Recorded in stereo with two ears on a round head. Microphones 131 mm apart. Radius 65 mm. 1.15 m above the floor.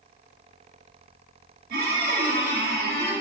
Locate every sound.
1.7 s a squeak: 75° right (ahead or behind), 1.3 m